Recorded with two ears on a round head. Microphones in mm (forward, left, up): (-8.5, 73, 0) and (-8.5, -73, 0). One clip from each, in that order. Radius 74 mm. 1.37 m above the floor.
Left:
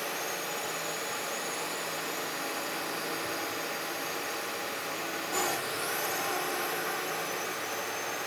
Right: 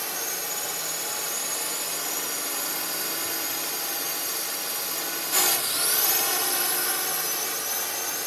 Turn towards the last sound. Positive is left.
turn(degrees=-75)  # may be behind; listen again after turning